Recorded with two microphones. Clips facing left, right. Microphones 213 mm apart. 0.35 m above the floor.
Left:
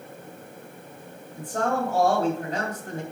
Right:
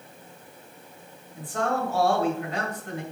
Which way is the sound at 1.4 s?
45° left (ahead or behind).